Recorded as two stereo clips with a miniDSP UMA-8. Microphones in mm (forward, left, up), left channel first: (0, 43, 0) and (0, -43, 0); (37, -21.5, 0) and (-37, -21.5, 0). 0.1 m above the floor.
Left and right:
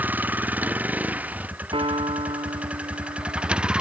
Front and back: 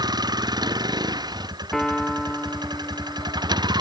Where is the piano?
85° right.